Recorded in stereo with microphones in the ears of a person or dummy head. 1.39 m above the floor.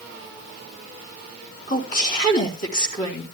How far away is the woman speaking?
About 4.5 m.